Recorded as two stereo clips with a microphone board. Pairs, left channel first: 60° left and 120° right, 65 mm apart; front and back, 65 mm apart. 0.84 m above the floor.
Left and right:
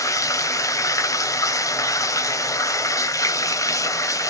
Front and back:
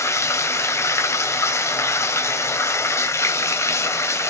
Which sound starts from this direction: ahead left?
Running water, at 0.0 s.